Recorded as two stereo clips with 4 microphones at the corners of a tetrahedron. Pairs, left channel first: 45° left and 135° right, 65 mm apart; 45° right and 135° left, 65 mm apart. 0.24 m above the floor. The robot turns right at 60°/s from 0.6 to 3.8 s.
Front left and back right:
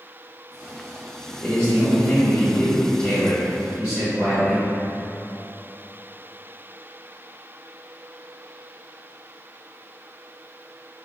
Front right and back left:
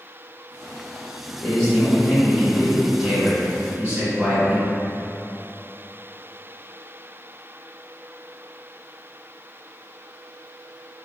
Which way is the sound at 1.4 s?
30° right.